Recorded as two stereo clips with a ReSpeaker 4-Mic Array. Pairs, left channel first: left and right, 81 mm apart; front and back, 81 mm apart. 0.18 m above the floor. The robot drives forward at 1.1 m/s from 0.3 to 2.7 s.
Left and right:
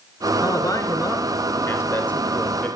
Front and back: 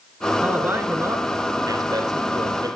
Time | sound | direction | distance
0.4 | a man speaking | 115° left | 1.6 m